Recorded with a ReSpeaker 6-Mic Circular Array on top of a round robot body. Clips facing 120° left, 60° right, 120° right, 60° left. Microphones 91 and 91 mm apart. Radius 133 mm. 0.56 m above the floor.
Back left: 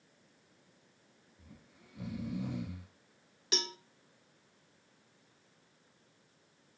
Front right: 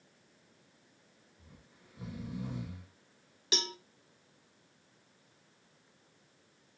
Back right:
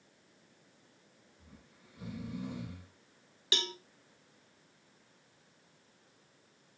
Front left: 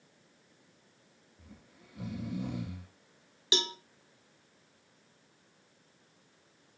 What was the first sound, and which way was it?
Snoring, 90° left.